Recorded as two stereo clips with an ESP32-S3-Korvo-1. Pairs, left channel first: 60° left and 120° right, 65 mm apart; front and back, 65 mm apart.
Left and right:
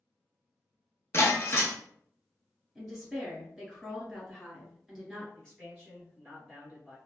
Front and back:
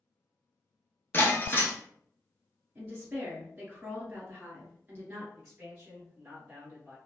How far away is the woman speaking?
About 1.4 m.